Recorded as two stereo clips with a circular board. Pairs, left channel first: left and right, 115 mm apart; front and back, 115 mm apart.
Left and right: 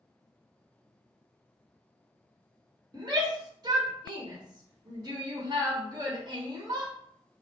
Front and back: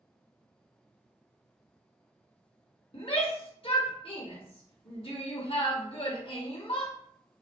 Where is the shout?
35° right, 1.4 m.